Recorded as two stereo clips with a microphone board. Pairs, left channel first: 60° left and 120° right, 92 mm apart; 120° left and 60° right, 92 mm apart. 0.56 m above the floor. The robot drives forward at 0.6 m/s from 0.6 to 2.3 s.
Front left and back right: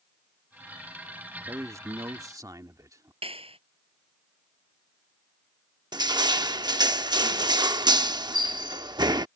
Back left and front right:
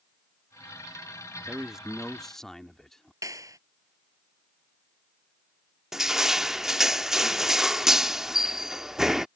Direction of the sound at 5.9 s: 145° right.